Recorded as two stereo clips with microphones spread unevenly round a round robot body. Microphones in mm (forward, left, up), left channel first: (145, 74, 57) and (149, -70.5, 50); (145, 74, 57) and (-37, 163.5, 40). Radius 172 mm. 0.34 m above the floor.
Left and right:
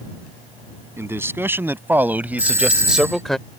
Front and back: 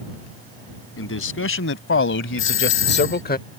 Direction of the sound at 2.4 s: 15° right.